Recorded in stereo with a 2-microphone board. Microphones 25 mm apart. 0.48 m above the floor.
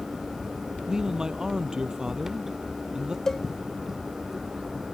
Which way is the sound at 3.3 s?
15° left (ahead or behind).